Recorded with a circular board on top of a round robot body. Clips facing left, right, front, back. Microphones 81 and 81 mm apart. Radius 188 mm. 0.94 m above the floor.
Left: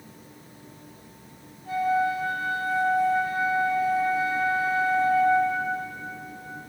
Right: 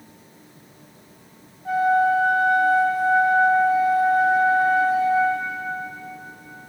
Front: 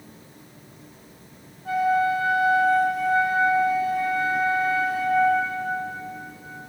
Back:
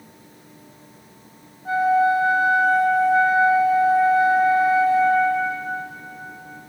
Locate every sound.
1.6 s a flute: 115° right, 4.5 m